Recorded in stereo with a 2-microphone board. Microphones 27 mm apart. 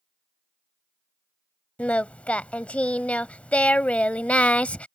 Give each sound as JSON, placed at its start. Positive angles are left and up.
{"t": 1.8, "sound": "singing", "side_deg": 60}